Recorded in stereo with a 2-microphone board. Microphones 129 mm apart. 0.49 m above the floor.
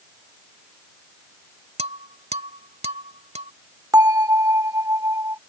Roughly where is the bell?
Right.